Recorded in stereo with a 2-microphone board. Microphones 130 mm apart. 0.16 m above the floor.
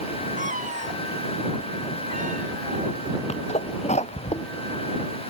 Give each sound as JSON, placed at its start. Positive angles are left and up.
{"t": 0.4, "sound": "a cat meowing", "side_deg": -80}
{"t": 3.3, "sound": "a sneeze", "side_deg": 60}